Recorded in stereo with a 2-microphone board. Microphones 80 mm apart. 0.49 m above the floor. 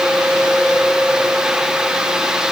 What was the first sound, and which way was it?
Only background noise.